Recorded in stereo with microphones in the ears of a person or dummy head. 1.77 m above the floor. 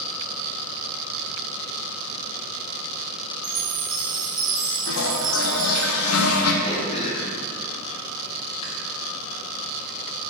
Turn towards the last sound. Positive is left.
turn(degrees=35)  # may be behind; listen again after turning